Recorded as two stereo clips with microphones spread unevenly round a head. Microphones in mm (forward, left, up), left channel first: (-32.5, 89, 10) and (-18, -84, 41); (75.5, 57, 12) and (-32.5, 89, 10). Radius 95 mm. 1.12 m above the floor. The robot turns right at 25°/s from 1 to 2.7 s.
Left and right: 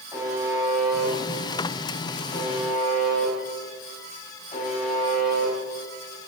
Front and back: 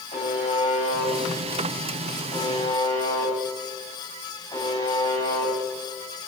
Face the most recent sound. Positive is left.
turn(degrees=35)